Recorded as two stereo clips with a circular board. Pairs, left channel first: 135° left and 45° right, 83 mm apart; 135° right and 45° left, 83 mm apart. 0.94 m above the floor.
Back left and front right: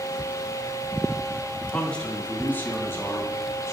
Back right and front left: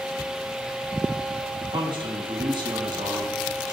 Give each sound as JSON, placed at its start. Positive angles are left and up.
{"t": 1.7, "sound": "a man speaking", "azimuth_deg": 55, "distance_m": 1.4}